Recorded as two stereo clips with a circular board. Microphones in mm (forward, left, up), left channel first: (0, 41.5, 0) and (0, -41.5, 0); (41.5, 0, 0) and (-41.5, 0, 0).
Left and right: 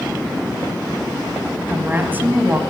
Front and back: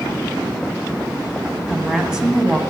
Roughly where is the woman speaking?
Behind right.